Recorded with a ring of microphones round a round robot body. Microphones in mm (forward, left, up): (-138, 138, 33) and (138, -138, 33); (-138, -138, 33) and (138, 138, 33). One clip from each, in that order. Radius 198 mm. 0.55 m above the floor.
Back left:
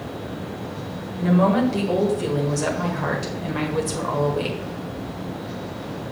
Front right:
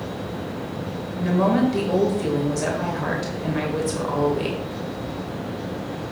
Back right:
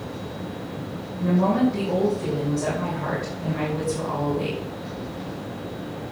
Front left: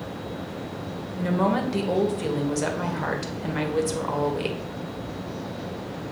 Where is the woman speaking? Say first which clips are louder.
Back left 1 dB, back right 2 dB; 50° left, 2 m.